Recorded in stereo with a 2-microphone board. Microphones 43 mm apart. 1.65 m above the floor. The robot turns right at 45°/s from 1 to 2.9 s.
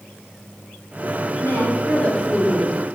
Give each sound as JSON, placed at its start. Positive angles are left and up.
{"t": 1.4, "sound": "a woman speaking", "azimuth_deg": 120, "distance_m": 3.0}